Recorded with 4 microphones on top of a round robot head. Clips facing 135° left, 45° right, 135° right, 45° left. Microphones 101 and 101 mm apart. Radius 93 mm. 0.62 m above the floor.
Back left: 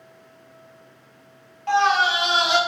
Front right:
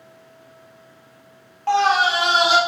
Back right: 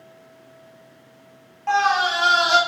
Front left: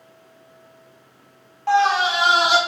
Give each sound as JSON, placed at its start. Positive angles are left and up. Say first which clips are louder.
{"t": 1.7, "sound": "a scream", "louder": "front right 2 dB, front left 2 dB", "azimuth_deg": -30, "distance_m": 1.3}